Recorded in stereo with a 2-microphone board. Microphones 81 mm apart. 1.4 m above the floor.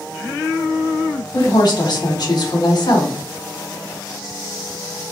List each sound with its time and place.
1.3 s a woman speaking: 60° left (ahead or behind), 1.0 m